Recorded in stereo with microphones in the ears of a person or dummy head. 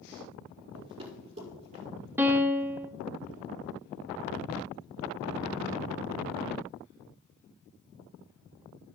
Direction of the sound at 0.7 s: 25° right (ahead or behind).